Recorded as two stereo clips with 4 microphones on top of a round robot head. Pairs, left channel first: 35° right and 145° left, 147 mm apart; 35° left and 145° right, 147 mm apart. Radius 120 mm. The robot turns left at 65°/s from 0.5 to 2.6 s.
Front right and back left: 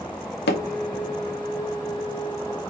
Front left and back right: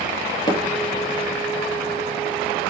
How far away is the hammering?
About 0.7 m.